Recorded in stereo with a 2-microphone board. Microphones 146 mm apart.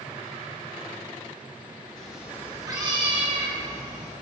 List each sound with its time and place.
2.0 s a cat meowing: 5° left (ahead or behind), 1.2 m; by 4.1 s 55° right (ahead or behind), 2.5 m